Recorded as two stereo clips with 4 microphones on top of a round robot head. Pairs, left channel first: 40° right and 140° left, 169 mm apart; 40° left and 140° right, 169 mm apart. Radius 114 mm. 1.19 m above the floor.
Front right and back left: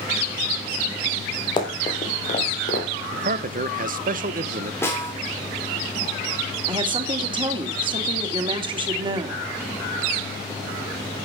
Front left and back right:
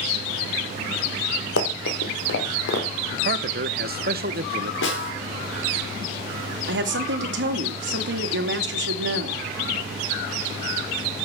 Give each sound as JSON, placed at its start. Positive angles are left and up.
{"t": 1.6, "sound": "running footsteps", "azimuth_deg": 30, "distance_m": 2.5}
{"t": 3.1, "sound": "a man speaking", "azimuth_deg": -175, "distance_m": 0.8}
{"t": 4.8, "sound": "a snare drum", "azimuth_deg": 40, "distance_m": 3.5}
{"t": 6.7, "sound": "a woman speaking", "azimuth_deg": -155, "distance_m": 2.5}